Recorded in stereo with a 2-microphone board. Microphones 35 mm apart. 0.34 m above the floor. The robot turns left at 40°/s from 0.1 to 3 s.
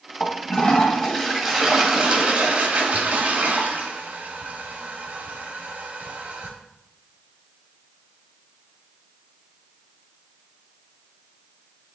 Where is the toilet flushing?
50° left, 1.6 m; by 6.6 s 60° right, 1.6 m.